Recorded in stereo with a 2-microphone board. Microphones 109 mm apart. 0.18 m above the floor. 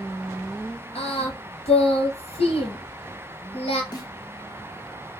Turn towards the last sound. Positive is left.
turn(degrees=40)  # may be behind; listen again after turning